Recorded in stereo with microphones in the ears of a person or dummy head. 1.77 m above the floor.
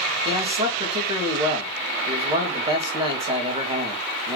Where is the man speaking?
25° right (ahead or behind), 2.5 m.